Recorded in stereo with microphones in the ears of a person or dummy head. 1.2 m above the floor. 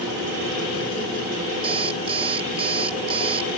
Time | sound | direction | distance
1.6 | an alarm clock | 20° right (ahead or behind) | ?